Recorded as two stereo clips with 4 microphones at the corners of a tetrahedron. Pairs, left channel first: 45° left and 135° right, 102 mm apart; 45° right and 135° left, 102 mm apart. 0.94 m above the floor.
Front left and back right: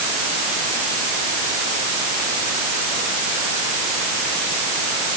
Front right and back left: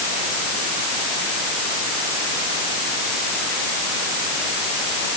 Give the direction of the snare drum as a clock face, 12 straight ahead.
I don't hear a snare drum.